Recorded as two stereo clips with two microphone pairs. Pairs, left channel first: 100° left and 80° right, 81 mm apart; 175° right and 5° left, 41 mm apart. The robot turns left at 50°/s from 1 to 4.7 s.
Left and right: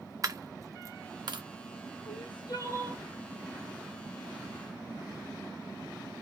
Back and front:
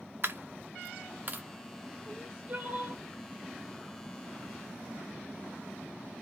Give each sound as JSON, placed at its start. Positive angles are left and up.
{"t": 0.2, "sound": "a dropped coin", "azimuth_deg": -30, "distance_m": 0.7}
{"t": 2.1, "sound": "crying", "azimuth_deg": 80, "distance_m": 1.3}